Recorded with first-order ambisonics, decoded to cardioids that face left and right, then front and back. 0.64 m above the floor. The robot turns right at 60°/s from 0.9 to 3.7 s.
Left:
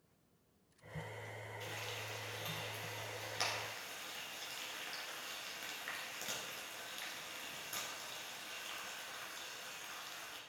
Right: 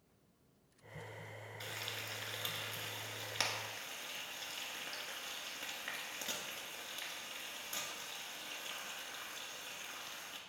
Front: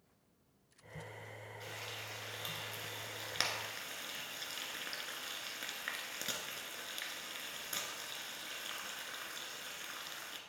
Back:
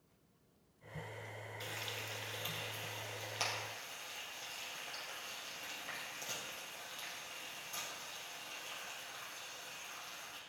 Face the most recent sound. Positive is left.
turn(degrees=0)